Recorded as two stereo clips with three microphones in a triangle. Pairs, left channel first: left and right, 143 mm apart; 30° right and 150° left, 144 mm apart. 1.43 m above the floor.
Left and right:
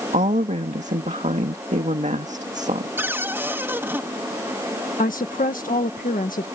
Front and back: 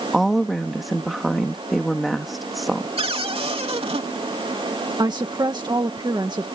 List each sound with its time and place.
0.1 s a woman speaking: 120° right
3.0 s a cupboard door: 165° right
5.0 s a woman speaking: 95° left